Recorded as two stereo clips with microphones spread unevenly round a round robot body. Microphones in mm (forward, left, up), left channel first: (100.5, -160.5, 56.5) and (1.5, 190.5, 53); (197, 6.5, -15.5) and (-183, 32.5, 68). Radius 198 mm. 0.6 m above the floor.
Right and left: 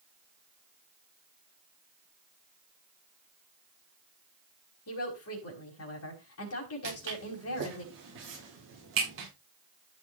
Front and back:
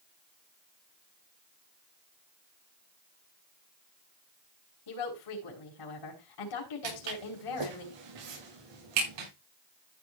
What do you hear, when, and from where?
4.9 s a woman speaking: 25° right, 4.5 m
6.8 s footsteps: 165° left, 7.5 m